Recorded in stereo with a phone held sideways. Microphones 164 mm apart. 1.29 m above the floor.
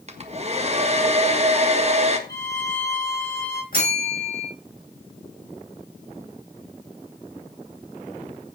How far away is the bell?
About 7 m.